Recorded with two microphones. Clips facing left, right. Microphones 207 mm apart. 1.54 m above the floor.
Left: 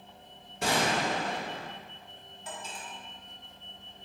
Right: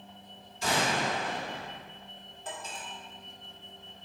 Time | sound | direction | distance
0.6 | a gunshot | 65° left (ahead or behind) | 1.6 m
2.5 | cutlery clinking | 50° right (ahead or behind) | 2.5 m